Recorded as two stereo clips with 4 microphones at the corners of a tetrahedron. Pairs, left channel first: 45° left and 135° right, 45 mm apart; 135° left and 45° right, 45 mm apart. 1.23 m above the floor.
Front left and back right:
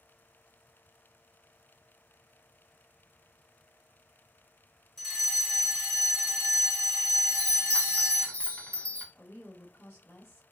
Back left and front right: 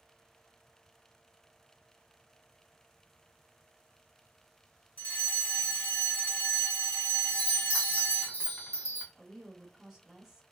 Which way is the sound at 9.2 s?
40° left.